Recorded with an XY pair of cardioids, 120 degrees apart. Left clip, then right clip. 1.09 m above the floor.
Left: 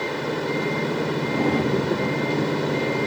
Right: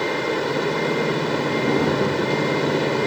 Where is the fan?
25° right.